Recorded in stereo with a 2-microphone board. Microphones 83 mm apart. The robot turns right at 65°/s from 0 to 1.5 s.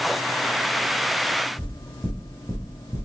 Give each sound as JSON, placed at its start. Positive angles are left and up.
{"t": 1.6, "sound": "knocking", "side_deg": -10, "distance_m": 1.6}